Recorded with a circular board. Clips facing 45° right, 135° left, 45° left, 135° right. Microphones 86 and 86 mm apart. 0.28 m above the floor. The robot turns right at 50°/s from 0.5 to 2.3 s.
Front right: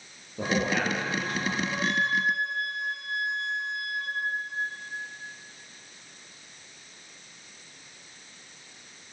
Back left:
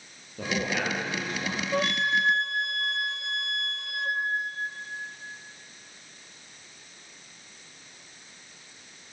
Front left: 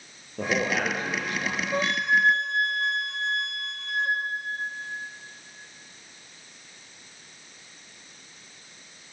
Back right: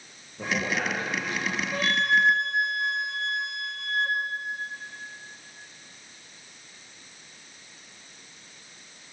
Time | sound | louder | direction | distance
0.4 | a man speaking | front right 2 dB, front left 3 dB | 30° left | 7 m
1.7 | a flute | back left 3 dB, even | 110° left | 1.6 m